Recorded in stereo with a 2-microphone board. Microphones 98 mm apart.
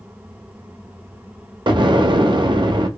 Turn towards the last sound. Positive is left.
turn(degrees=-50)  # may be behind; listen again after turning